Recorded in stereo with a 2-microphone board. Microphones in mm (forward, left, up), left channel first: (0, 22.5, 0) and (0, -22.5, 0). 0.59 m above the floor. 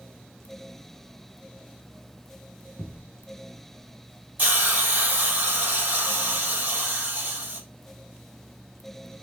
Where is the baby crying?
I don't hear a baby crying.